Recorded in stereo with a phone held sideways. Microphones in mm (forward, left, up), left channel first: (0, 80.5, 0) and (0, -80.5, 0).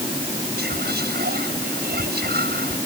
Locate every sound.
0.6 s whispering: 80° right